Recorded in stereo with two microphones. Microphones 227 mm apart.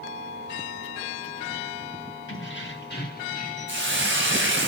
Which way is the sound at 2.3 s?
60° left (ahead or behind).